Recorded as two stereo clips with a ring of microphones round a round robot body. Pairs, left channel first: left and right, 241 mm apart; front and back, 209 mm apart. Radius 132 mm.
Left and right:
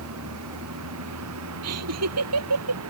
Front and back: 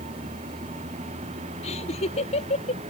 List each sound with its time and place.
0.0 s a vehicle: 115° right
1.6 s laughter: 65° right